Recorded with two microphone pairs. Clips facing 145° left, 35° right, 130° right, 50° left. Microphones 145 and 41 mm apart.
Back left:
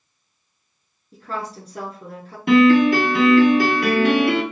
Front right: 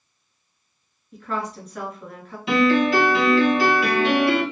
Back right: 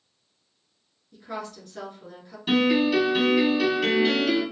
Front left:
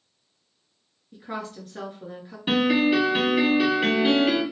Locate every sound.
1.1 s a woman speaking: 110° left, 1.5 m
2.5 s a piano: 115° left, 1.9 m